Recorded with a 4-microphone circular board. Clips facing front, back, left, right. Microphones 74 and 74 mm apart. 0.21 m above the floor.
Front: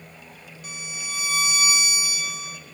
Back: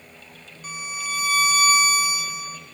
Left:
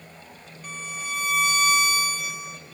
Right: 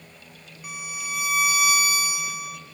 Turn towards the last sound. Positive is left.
turn(degrees=-165)